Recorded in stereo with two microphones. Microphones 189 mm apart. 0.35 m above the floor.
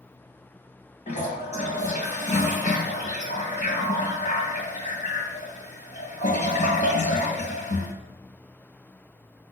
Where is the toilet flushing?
40° left (ahead or behind), 2.0 m.